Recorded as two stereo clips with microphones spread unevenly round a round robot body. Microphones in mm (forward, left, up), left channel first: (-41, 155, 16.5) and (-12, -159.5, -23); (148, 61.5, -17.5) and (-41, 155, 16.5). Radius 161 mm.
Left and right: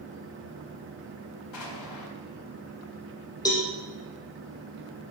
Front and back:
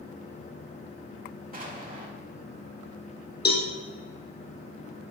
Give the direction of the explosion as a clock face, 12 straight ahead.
9 o'clock.